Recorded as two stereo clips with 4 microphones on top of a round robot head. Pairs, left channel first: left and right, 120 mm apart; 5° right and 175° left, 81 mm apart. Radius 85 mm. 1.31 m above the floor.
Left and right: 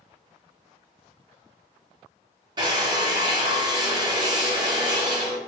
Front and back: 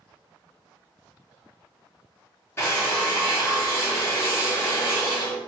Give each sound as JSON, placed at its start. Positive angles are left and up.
{"t": 2.6, "sound": "a drill", "azimuth_deg": -50, "distance_m": 0.7}